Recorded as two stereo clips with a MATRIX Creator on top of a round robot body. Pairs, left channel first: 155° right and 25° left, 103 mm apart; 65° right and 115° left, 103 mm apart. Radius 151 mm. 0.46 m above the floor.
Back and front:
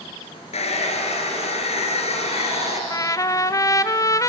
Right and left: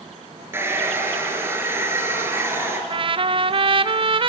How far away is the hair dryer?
About 3.5 m.